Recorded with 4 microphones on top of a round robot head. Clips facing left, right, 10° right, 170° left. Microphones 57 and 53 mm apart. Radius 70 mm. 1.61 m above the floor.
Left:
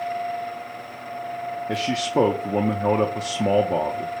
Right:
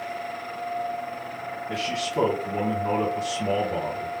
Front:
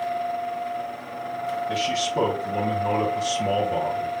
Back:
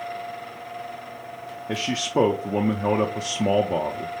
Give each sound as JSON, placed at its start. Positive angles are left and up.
{"t": 1.7, "sound": "a man speaking", "azimuth_deg": 125, "distance_m": 0.6}